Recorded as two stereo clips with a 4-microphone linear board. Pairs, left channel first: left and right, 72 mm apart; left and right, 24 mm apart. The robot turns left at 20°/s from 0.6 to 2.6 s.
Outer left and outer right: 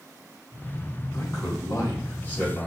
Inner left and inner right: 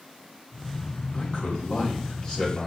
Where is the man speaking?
50° left (ahead or behind), 2 m; by 2.7 s 25° left (ahead or behind), 2 m.